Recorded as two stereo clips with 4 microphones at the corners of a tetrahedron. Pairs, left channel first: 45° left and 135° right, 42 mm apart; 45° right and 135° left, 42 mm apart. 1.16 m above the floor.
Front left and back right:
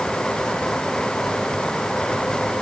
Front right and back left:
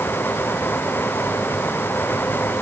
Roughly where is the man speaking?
No man speaking in this recording.